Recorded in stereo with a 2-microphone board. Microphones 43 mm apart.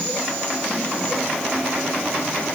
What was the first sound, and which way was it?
Only background noise.